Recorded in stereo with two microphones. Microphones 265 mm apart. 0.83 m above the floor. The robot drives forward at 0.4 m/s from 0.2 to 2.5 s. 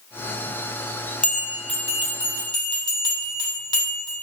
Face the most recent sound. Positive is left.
turn(degrees=15)  # may be behind; listen again after turning